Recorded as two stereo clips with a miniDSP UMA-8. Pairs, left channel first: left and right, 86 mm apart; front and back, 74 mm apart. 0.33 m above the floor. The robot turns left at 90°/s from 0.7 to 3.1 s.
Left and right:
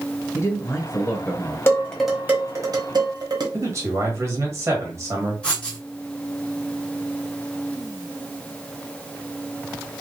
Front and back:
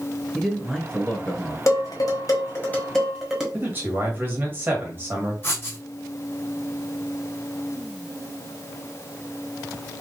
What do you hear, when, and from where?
0.3 s a man speaking: 85° left, 1.0 m; by 1.6 s 5° left, 1.0 m
1.7 s dishes clattering: 35° left, 1.3 m; by 3.4 s 95° right, 1.3 m
3.5 s a man speaking: 130° right, 1.6 m
5.4 s writing: 20° left, 1.5 m